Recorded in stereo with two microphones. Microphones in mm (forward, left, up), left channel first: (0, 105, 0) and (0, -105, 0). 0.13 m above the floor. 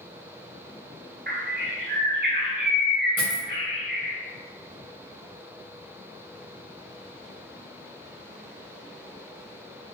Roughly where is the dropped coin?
Left.